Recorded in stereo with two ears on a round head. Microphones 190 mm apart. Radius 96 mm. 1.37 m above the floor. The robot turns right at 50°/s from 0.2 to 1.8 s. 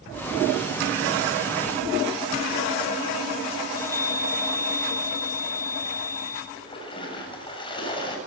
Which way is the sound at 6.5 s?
20° left (ahead or behind).